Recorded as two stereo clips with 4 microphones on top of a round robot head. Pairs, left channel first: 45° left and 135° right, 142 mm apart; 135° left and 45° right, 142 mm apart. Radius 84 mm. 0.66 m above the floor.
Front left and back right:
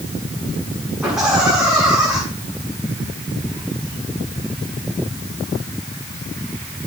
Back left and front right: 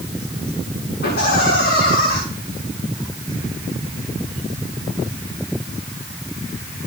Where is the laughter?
140° left, 7.5 m.